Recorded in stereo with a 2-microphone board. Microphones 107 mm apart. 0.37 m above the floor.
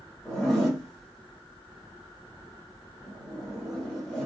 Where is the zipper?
Centre (ahead or behind), 1.4 m.